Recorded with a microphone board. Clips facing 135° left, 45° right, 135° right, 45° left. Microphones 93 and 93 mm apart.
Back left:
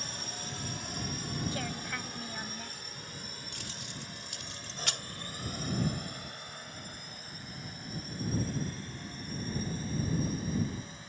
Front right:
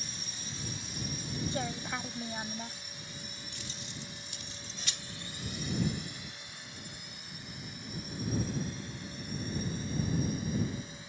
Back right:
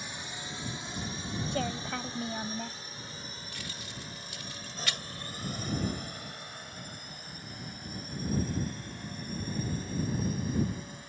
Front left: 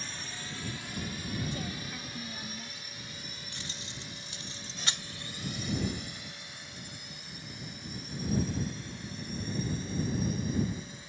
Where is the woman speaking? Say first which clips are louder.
Front right 2 dB, back right 6 dB; 115° right.